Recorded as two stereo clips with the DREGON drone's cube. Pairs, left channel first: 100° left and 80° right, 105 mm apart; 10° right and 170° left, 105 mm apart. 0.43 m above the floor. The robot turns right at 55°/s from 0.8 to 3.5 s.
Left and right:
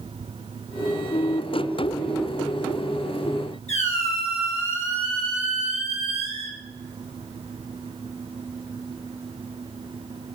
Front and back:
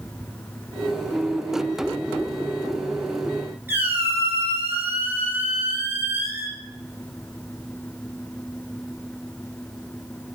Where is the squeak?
100° left, 4 m.